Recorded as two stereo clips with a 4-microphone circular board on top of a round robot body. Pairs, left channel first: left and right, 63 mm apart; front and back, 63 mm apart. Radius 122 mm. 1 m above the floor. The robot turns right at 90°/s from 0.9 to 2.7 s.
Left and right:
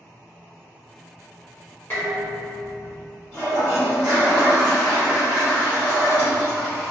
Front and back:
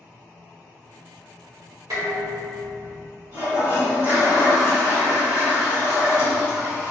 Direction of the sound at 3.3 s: 155° right.